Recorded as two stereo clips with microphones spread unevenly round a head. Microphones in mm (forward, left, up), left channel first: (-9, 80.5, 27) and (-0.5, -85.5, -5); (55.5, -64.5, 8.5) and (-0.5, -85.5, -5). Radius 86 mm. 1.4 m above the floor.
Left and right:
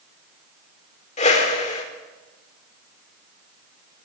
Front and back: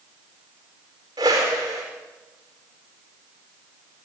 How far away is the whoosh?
About 4 m.